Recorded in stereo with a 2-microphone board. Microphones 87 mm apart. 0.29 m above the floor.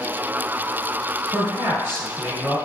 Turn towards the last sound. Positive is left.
turn(degrees=-25)  # may be behind; listen again after turning